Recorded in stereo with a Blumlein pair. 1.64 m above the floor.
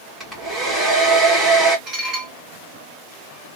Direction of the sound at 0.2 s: Straight ahead.